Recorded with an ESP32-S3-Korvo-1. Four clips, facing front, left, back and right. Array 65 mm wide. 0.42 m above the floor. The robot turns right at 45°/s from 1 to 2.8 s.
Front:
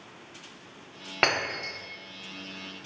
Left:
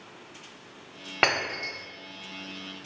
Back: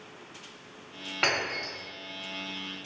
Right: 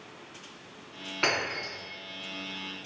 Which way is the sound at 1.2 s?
55° left.